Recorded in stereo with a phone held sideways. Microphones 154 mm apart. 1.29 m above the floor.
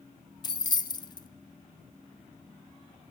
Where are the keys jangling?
30° left (ahead or behind), 0.6 m.